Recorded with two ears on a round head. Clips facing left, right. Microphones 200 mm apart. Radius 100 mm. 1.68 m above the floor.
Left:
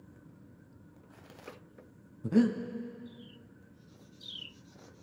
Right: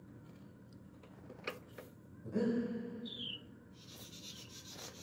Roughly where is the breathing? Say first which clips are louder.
Left 8 dB; left.